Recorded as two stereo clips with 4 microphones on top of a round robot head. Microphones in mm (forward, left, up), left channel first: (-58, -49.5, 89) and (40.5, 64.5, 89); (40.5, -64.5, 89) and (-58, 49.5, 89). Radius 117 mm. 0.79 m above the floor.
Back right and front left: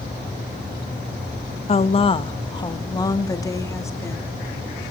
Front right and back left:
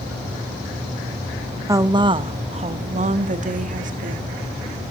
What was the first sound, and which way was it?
A woman speaking, 165° right.